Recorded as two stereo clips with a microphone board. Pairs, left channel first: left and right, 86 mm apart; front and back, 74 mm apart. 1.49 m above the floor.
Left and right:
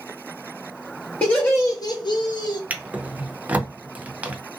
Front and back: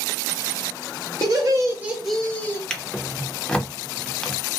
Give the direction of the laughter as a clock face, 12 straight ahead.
7 o'clock.